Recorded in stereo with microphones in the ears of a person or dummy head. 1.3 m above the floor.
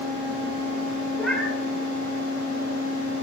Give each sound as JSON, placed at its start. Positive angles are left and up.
{"t": 1.1, "sound": "a cat meowing", "side_deg": 0, "distance_m": 1.6}